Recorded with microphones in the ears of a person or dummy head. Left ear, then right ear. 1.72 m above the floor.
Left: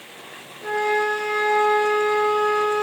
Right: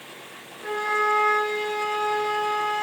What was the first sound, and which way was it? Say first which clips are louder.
A flute: left 2 dB; 15° left (ahead or behind).